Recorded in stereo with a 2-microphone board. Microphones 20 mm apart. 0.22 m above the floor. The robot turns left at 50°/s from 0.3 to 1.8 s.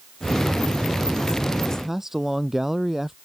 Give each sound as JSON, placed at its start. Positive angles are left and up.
{"t": 1.7, "sound": "a man speaking", "side_deg": -25}